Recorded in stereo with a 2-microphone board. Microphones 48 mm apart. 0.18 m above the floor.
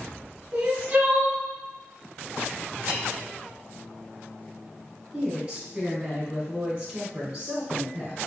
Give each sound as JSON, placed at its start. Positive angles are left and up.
{"t": 0.5, "sound": "crying", "side_deg": -30, "distance_m": 0.7}
{"t": 2.9, "sound": "a snare drum", "side_deg": -40, "distance_m": 0.8}
{"t": 5.1, "sound": "a woman speaking", "side_deg": -15, "distance_m": 1.2}